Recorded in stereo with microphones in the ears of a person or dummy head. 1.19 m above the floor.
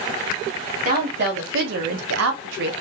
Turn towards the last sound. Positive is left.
turn(degrees=-60)  # may be behind; listen again after turning